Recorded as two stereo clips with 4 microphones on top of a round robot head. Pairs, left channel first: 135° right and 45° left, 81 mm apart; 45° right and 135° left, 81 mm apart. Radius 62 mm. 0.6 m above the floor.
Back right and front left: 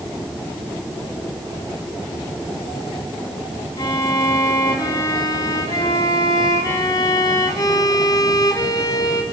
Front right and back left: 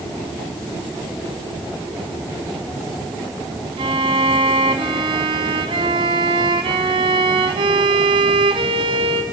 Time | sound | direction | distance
3.8 | a violin | 170° left | 1.2 m